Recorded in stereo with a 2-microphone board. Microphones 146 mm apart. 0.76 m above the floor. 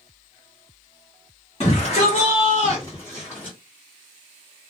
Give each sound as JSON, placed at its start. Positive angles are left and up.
{"t": 1.6, "sound": "a shout", "side_deg": 40, "distance_m": 1.3}